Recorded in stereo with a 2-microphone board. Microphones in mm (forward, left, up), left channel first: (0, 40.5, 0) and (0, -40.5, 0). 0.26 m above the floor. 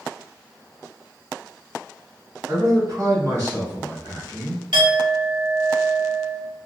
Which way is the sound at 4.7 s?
70° right (ahead or behind).